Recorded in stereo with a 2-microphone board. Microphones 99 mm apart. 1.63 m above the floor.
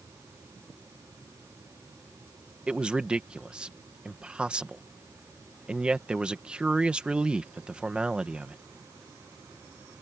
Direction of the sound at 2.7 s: 10° right (ahead or behind).